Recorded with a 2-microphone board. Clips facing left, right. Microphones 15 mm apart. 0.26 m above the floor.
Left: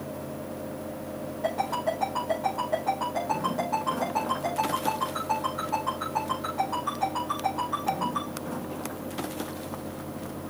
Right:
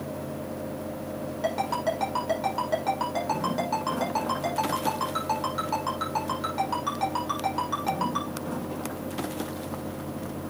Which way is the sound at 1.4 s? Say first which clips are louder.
Right 1 dB; 70° right (ahead or behind).